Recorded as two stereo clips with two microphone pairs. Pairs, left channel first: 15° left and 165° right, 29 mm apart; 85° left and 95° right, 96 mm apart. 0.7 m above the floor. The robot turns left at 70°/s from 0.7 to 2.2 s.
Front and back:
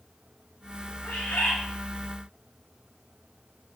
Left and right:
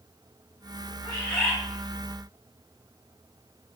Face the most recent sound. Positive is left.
turn(degrees=-60)